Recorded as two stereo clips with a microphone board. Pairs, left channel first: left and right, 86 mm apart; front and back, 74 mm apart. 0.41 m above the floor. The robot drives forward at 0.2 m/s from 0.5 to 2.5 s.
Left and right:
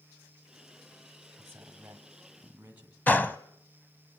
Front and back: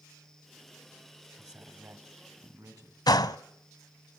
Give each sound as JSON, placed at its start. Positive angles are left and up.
{"t": 1.4, "sound": "a man speaking", "azimuth_deg": -155, "distance_m": 2.5}
{"t": 3.1, "sound": "a gunshot", "azimuth_deg": 20, "distance_m": 0.7}